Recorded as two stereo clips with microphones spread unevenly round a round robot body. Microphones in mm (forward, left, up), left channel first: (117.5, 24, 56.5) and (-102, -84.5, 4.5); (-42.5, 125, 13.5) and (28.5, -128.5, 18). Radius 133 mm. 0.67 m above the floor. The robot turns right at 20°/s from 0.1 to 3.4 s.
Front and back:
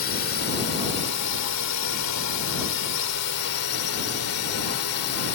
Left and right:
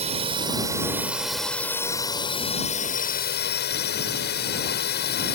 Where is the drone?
10° right; by 5.3 s 55° left.